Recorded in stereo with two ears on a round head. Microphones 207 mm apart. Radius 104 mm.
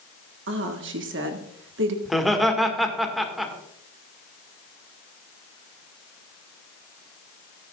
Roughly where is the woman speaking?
Right.